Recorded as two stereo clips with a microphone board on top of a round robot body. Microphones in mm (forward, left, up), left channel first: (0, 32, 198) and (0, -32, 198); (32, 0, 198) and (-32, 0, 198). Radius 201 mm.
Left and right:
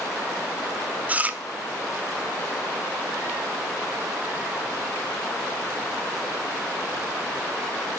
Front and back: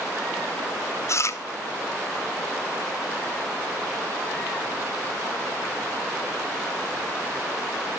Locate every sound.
1.1 s chewing: 30° right, 1.6 m